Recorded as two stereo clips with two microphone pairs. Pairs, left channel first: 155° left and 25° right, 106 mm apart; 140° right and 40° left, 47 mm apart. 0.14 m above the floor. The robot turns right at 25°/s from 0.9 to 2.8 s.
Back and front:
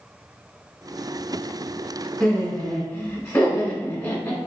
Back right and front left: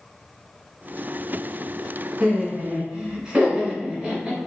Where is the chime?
I don't hear a chime.